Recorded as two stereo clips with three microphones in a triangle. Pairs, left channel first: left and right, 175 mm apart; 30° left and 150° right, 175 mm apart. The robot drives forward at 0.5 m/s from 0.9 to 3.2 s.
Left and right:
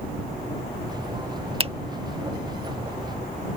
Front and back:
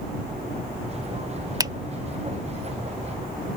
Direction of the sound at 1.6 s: 100° right.